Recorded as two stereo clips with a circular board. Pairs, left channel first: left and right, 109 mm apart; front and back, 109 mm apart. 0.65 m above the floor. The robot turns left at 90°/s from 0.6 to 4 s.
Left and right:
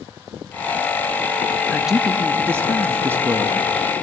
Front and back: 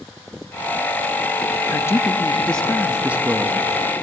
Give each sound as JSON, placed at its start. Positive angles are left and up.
{"t": 1.7, "sound": "a man speaking", "azimuth_deg": 5, "distance_m": 0.5}